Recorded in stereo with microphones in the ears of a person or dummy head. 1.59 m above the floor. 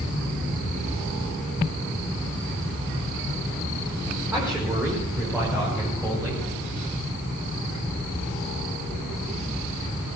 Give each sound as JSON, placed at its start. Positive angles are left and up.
{"t": 4.3, "sound": "a man speaking", "side_deg": -15, "distance_m": 4.0}